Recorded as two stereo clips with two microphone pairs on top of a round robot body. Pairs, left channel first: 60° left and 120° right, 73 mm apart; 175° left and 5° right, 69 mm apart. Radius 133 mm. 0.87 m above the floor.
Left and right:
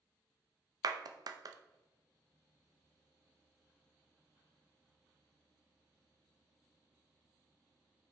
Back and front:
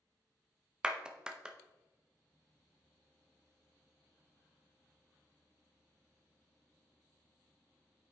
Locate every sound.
0.8 s a clap: 85° right, 0.7 m